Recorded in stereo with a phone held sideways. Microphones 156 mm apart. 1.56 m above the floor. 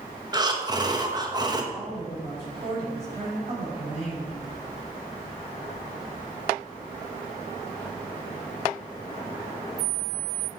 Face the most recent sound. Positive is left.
turn(degrees=-40)  # may be behind; listen again after turning